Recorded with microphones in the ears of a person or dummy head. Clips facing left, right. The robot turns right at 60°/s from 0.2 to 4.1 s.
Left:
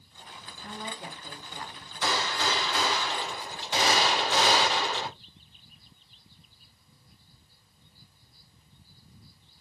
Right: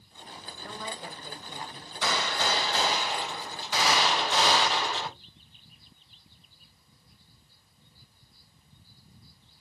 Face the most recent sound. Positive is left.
turn(degrees=50)